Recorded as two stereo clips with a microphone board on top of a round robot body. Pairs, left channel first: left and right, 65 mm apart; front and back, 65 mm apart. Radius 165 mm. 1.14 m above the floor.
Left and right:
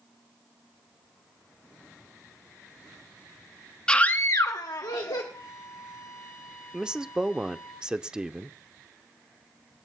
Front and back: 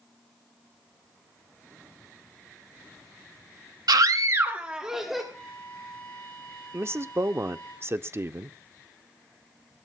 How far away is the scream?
About 0.8 m.